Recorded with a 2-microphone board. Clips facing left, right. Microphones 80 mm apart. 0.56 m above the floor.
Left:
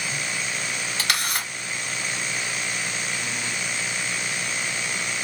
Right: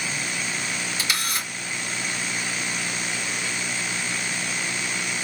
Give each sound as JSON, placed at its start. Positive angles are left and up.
{"t": 1.0, "sound": "a camera shutter", "side_deg": 70, "distance_m": 1.7}